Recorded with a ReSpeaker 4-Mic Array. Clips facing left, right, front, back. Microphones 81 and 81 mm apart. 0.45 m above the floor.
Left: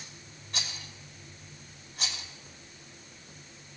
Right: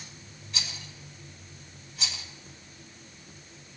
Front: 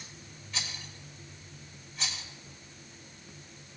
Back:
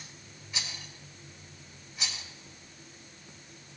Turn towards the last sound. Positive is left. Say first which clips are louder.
# even, front 1 dB
turn(degrees=100)